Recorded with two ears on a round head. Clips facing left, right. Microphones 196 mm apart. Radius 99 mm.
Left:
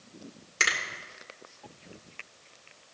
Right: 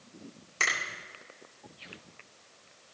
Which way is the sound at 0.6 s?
15° left (ahead or behind).